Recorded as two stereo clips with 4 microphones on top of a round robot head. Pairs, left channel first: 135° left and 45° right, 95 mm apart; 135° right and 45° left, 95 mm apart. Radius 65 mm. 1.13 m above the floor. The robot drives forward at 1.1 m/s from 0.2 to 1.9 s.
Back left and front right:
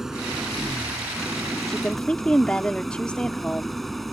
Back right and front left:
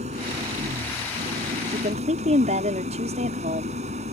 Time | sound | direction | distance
0.0 | an engine running | 40° left | ?
1.7 | a woman speaking | 50° left | ?